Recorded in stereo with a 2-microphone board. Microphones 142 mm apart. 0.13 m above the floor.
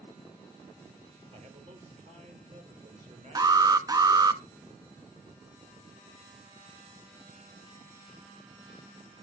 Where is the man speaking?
55° right (ahead or behind), 3 m.